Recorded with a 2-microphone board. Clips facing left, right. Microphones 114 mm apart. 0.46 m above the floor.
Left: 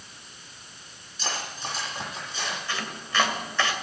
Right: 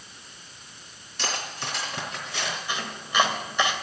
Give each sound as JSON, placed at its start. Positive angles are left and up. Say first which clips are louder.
{"t": 1.2, "sound": "cutlery clinking", "louder": "right 1 dB", "side_deg": -75, "distance_m": 4.0}
{"t": 2.7, "sound": "chopping", "louder": "right 1 dB", "side_deg": -15, "distance_m": 2.5}